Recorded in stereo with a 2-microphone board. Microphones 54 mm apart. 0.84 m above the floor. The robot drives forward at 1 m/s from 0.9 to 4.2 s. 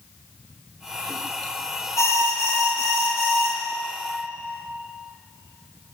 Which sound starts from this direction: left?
An alarm, at 2.0 s.